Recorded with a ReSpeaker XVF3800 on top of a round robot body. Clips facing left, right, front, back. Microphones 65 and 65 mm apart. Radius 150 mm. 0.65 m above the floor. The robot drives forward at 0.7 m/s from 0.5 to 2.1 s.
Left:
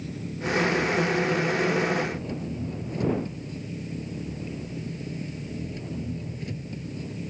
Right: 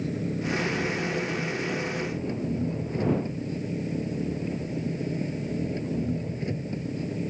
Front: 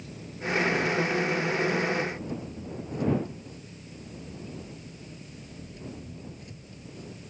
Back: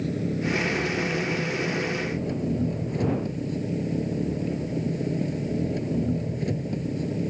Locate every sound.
0.0 s an engine running: 145° right; by 7.3 s 150° right